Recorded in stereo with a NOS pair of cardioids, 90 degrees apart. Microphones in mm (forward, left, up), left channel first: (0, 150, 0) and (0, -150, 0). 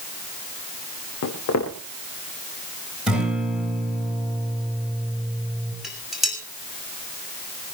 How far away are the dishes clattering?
About 6.5 m.